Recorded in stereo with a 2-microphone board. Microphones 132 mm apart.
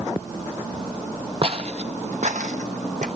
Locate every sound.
1.4 s footsteps: 45° right (ahead or behind), 0.7 m; by 3.1 s 70° right (ahead or behind), 1.4 m